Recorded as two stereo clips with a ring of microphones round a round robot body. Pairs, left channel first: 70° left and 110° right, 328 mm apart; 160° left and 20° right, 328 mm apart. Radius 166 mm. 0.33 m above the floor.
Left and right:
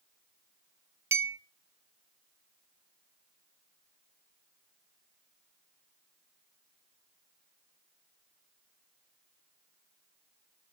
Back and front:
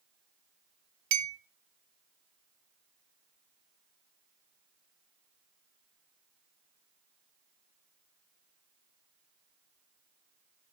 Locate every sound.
1.1 s a clink: 30° right, 1.2 m